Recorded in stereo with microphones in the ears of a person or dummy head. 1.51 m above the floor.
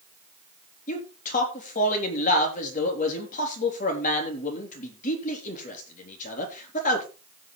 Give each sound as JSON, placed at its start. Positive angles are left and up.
{"t": 0.9, "sound": "a man speaking", "side_deg": 45, "distance_m": 3.5}